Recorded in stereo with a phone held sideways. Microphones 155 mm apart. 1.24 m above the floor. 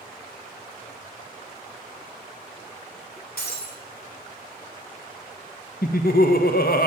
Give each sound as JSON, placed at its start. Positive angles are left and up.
{"t": 3.4, "sound": "breaking glass", "side_deg": 85, "distance_m": 3.0}
{"t": 5.8, "sound": "laughter", "side_deg": 75, "distance_m": 1.3}